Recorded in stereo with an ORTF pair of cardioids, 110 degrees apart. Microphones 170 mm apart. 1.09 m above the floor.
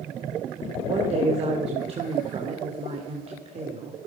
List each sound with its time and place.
0.8 s a woman speaking: 35° right, 3 m